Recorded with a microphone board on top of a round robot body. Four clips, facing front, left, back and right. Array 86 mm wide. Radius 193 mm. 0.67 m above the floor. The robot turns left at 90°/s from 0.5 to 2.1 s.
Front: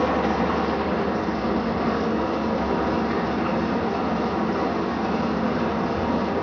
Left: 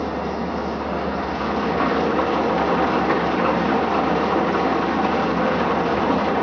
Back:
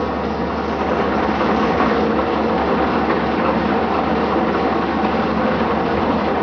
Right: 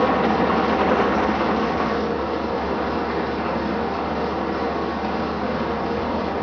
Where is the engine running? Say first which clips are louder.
Right 6 dB, back 1 dB; 80° right, 0.7 m; by 6.4 s 140° left, 0.7 m.